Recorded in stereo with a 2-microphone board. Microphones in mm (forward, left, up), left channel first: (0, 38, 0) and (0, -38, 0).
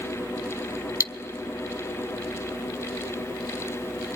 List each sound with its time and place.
1.0 s cutlery clinking: 40° left (ahead or behind), 0.5 m